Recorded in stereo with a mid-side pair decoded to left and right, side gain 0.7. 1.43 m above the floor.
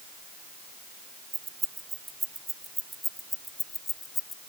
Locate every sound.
1.3 s keys jangling: 20° right; by 4.4 s 30° left